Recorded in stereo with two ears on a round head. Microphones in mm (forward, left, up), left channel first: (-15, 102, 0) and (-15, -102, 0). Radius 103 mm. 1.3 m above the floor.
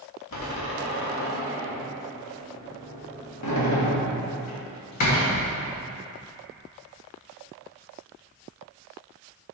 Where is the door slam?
80° left, 1.4 m.